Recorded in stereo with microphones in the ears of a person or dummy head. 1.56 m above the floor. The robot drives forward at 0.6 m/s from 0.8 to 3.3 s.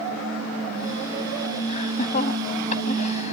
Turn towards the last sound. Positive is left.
turn(degrees=40)  # may be behind; listen again after turning